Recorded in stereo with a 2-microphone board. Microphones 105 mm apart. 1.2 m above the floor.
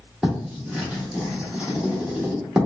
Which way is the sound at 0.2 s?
10° right (ahead or behind).